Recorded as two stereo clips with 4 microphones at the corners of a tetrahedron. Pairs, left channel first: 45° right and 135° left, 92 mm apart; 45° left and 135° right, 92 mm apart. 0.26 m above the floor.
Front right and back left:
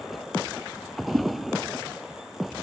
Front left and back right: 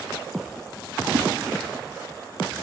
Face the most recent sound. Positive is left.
turn(degrees=-160)